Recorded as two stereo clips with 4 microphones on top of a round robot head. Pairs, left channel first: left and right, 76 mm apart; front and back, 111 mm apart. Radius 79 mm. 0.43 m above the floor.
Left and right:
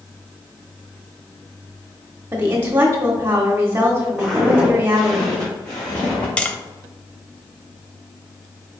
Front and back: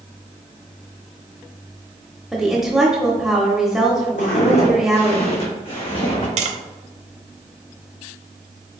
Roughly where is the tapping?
Behind.